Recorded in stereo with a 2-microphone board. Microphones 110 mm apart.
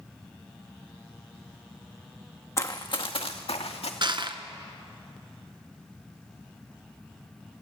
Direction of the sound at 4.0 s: 50° right (ahead or behind).